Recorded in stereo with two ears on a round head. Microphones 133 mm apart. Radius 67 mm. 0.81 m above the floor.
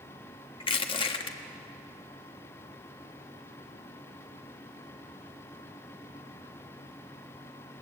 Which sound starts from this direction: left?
Crushing, at 0.6 s.